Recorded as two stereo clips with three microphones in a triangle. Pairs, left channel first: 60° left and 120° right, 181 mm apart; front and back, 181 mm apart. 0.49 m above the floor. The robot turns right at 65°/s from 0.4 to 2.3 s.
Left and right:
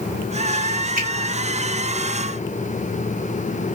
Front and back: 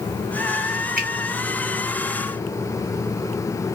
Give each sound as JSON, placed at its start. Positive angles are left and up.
{"t": 1.0, "sound": "a finger snap", "azimuth_deg": -150, "distance_m": 1.8}